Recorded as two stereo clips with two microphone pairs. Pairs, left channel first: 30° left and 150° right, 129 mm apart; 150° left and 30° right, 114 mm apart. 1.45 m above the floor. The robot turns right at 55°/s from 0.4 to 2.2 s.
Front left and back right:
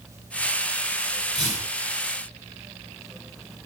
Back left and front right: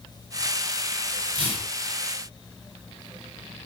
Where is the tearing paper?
Straight ahead, 1.9 m; by 1.7 s 20° left, 1.9 m.